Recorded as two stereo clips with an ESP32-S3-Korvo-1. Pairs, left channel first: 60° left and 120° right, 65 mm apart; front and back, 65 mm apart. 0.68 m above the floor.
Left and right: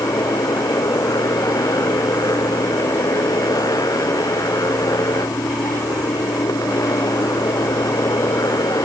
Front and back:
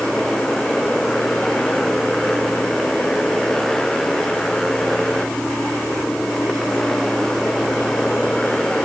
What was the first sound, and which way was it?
A motorcycle, 80° left.